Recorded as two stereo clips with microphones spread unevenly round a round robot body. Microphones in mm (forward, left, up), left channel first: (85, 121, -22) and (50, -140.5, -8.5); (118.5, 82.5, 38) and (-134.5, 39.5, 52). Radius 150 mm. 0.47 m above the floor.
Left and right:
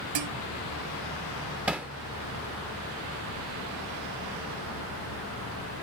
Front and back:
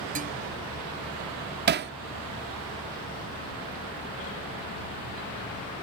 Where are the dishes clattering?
105° right.